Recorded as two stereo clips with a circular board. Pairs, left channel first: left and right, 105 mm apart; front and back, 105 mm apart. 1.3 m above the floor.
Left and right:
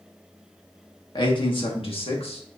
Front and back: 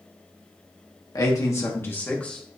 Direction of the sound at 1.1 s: 50° left.